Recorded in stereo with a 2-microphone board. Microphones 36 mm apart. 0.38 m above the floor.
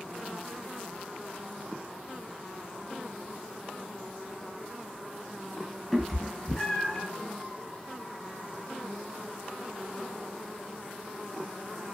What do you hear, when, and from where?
5.9 s a cat meowing: 5° left (ahead or behind), 0.6 m; by 7.0 s 25° left (ahead or behind), 1.5 m